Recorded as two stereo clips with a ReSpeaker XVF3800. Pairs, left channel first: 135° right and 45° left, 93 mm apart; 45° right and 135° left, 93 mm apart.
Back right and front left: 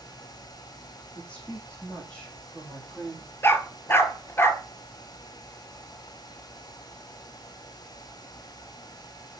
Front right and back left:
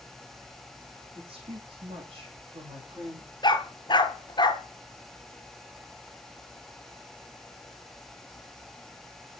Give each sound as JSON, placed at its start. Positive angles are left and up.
{"t": 1.1, "sound": "a woman speaking", "azimuth_deg": 150, "distance_m": 5.0}
{"t": 3.4, "sound": "a dog barking", "azimuth_deg": -70, "distance_m": 1.0}